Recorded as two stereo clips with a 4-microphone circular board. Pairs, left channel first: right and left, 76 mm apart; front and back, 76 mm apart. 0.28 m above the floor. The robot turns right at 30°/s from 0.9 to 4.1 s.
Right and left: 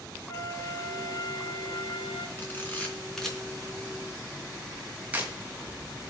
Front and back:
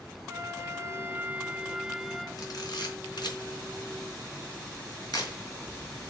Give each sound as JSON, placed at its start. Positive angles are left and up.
{"t": 0.3, "sound": "a flute", "azimuth_deg": -125, "distance_m": 1.0}
{"t": 2.4, "sound": "a camera shutter", "azimuth_deg": -30, "distance_m": 3.5}